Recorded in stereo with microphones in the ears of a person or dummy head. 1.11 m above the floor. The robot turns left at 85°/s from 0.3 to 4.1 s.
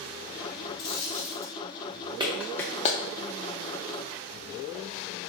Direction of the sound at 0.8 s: 75° left.